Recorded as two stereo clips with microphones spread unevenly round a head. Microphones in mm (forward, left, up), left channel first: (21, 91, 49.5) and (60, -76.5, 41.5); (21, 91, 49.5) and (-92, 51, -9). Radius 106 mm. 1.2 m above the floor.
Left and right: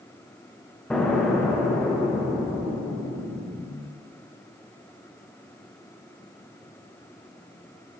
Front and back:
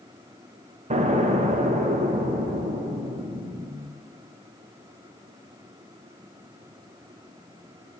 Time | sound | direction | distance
0.9 | an explosion | 170° right | 0.9 m